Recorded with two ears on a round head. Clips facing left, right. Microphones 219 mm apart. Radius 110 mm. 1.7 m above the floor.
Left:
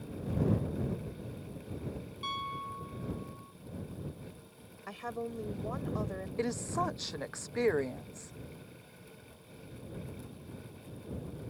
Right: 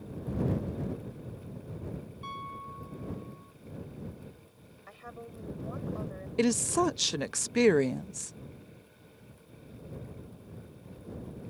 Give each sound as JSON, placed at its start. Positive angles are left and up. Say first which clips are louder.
{"t": 2.2, "sound": "a piano", "louder": "left 1 dB", "side_deg": 55}
{"t": 4.9, "sound": "a woman speaking", "louder": "left 8 dB", "side_deg": 65}
{"t": 6.4, "sound": "a woman speaking", "louder": "right 9 dB", "side_deg": -45}